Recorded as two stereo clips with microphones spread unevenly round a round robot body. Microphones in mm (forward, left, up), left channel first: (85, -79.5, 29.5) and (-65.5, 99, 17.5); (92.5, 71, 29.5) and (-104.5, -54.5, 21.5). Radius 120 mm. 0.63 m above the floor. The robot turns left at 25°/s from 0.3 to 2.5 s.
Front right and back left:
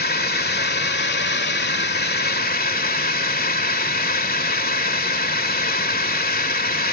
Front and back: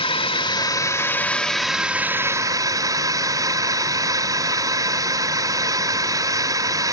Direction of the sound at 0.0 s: 25° right.